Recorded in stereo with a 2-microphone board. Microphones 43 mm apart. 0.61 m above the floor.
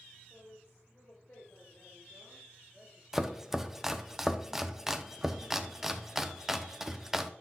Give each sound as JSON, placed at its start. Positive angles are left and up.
{"t": 0.3, "sound": "a woman speaking", "side_deg": 70, "distance_m": 3.0}
{"t": 3.1, "sound": "chopping", "side_deg": -10, "distance_m": 0.5}